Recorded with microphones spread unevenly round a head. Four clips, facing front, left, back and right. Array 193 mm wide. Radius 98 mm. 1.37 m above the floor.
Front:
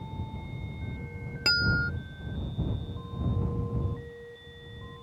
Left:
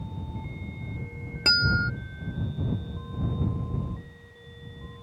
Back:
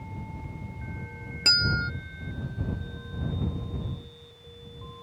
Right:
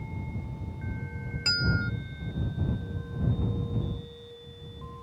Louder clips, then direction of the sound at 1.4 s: Left 5 dB, front 1 dB; 85° left.